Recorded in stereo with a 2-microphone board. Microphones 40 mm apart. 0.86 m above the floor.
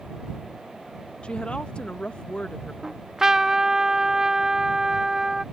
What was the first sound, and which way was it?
A woman speaking, 25° left (ahead or behind).